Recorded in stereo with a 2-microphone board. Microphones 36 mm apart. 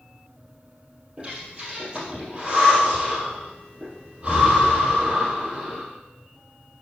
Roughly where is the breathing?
Right.